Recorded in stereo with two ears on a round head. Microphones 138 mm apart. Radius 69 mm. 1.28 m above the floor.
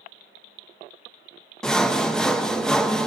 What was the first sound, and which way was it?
Sawing, 5° left (ahead or behind).